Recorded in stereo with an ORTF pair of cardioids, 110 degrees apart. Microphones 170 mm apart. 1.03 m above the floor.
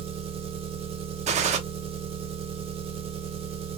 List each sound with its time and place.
0.0 s an engine running: 40° right, 0.8 m
1.3 s a gunshot: 50° right, 0.6 m